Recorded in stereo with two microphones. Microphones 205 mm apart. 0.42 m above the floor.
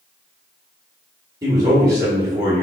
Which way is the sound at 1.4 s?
15° right (ahead or behind).